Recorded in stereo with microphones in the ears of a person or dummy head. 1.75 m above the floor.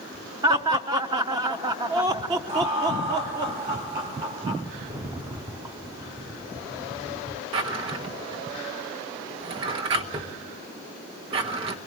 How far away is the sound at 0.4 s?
About 1.1 m.